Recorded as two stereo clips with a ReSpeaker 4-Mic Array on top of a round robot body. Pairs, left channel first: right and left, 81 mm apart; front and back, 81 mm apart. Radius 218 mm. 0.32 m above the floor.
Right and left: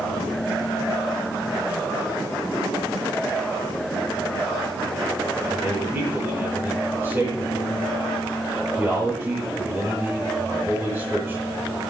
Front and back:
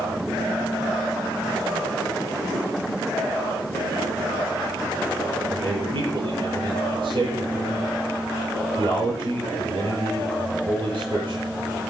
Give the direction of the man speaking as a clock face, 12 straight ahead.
7 o'clock.